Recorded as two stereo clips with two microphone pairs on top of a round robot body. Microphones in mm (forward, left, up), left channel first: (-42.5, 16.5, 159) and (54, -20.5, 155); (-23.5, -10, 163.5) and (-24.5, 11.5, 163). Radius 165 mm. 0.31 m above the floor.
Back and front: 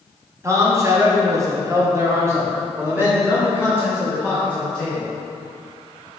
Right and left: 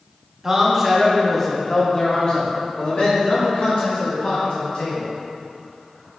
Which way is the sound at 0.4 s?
25° left.